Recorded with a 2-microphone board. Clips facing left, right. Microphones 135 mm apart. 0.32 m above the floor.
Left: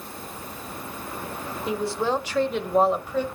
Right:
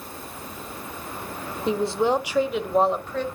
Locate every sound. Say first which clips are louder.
1.7 s a woman speaking: right 4 dB; 30° right (ahead or behind), 1.0 m; by 3.2 s 10° left (ahead or behind), 1.3 m